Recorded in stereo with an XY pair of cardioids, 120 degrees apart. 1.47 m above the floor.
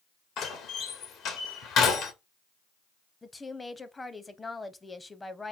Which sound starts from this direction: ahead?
A woman speaking, at 3.2 s.